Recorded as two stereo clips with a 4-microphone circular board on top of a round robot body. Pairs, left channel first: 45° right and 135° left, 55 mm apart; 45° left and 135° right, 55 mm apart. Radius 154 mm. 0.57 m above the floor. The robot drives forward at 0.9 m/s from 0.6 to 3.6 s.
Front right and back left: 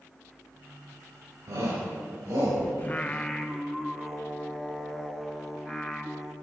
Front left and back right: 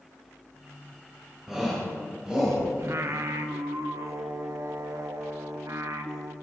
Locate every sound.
1.5 s a shout: 145° left, 4 m; by 2.6 s 150° left, 4.5 m
2.8 s singing: 100° right, 1.0 m; by 6.3 s 140° right, 1.3 m